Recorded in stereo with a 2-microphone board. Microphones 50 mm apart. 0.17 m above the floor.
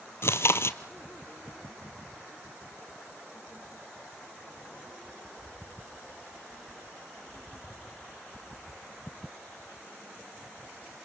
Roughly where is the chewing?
Left.